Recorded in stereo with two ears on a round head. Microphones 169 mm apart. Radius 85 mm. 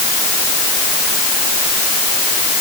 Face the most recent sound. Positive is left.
No sound to turn to.